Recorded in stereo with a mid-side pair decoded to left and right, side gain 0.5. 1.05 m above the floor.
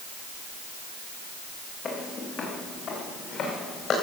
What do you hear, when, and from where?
1.9 s footsteps: 50° left, 3.5 m; by 3.9 s 55° left, 5.5 m